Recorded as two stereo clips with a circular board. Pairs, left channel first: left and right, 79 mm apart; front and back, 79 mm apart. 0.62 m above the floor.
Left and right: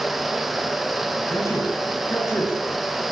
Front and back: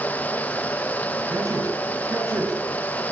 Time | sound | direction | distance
1.3 | a man speaking | 135° left | 7 m